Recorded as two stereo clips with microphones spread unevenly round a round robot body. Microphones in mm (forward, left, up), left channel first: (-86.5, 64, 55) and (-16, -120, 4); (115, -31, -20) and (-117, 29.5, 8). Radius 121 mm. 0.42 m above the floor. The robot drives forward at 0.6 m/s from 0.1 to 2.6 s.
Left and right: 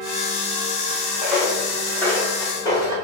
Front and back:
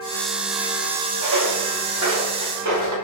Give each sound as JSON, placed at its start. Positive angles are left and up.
{"t": 1.2, "sound": "footsteps", "azimuth_deg": -160, "distance_m": 1.7}